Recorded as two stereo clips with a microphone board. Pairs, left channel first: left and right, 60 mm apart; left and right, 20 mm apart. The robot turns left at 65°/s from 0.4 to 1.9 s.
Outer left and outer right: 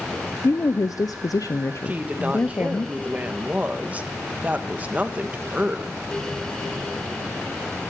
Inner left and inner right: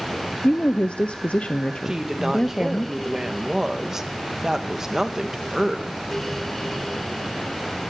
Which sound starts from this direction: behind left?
A woman speaking, at 0.4 s.